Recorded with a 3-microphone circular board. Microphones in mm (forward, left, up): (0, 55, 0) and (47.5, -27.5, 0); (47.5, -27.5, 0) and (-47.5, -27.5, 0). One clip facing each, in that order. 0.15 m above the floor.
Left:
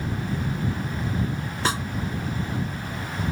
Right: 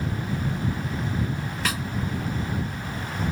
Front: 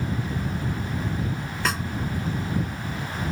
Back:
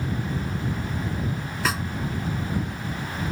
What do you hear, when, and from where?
1.6 s a snare drum: 90° left